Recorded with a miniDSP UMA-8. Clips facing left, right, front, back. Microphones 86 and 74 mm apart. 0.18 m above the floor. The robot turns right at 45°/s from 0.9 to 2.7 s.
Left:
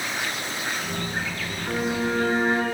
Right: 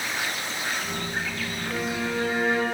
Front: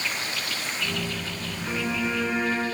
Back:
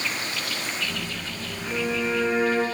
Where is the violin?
55° left, 2 m; by 2.6 s 100° left, 2 m.